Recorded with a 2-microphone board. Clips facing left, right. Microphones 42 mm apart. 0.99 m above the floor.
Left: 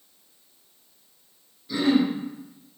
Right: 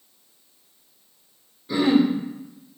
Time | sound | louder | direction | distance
1.7 | throat clearing | right 3 dB | 30° right (ahead or behind) | 1.8 m